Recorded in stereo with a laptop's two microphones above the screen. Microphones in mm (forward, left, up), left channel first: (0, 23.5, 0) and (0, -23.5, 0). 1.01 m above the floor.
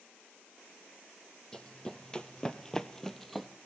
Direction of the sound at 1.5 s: 15° left (ahead or behind).